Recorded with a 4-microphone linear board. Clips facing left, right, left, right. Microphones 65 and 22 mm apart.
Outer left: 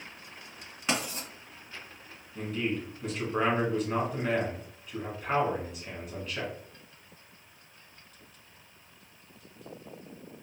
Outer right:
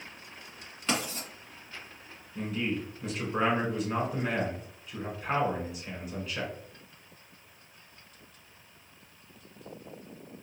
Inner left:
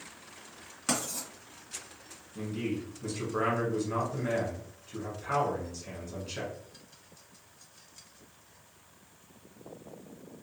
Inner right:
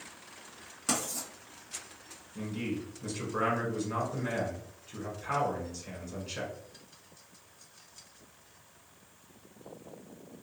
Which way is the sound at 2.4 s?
Centre (ahead or behind).